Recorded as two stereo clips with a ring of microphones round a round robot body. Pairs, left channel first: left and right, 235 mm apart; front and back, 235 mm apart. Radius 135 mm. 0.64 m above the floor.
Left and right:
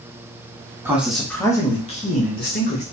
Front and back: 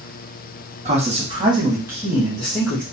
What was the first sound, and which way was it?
A man speaking, 165° right.